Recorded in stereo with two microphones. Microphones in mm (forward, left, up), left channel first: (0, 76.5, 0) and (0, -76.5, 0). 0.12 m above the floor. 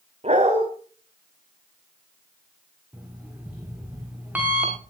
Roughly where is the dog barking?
Right.